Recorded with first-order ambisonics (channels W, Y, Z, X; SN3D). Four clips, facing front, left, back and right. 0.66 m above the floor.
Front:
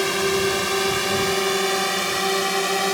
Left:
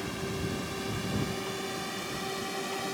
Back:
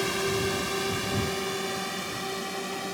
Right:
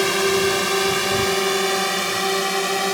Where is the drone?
65° right; by 3.0 s 45° right.